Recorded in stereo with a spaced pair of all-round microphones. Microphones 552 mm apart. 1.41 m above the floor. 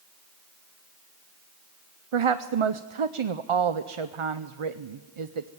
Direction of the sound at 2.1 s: 65° right (ahead or behind).